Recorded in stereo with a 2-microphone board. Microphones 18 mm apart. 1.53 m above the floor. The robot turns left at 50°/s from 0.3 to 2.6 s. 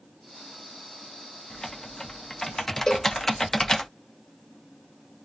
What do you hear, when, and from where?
1.5 s typing on a keyboard: 95° left, 0.7 m; by 3.9 s 40° left, 0.7 m
2.9 s a cowbell: 35° left (ahead or behind), 1.0 m